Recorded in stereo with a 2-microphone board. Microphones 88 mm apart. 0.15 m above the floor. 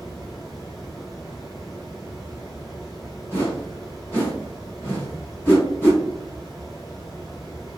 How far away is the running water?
About 0.9 m.